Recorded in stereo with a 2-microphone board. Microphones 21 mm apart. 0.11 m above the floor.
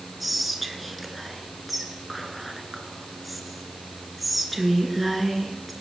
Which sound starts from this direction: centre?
Whispering, at 0.2 s.